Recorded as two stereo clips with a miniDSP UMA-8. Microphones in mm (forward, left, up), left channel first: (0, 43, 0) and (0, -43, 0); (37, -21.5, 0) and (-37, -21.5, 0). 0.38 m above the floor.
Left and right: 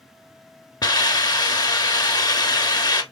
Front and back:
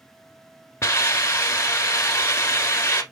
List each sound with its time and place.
0.8 s a hiss: 50° left, 0.8 m